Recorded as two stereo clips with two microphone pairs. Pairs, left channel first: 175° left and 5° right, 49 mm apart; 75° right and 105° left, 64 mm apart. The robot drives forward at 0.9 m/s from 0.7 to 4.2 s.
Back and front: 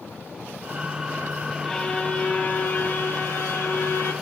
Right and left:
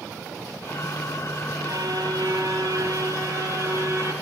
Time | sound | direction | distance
1.6 | a violin | 100° left | 1.9 m